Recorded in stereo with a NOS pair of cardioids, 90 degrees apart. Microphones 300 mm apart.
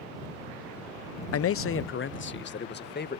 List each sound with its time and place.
1.3 s a man speaking: 50° left; by 3.2 s 35° left